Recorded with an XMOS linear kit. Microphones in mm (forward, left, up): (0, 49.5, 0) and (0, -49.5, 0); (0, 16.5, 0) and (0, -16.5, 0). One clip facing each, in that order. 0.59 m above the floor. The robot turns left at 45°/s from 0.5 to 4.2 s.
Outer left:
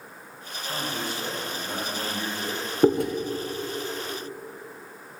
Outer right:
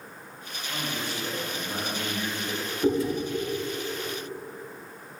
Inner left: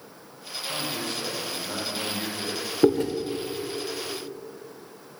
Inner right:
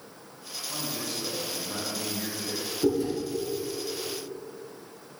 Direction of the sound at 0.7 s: 130° left.